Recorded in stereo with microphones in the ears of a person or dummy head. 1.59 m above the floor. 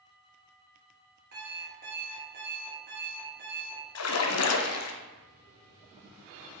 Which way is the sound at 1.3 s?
45° right (ahead or behind).